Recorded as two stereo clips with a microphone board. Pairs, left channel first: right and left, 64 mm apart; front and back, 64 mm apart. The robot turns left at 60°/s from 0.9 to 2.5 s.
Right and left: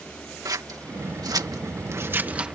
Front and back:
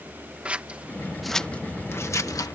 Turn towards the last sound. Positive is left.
turn(degrees=15)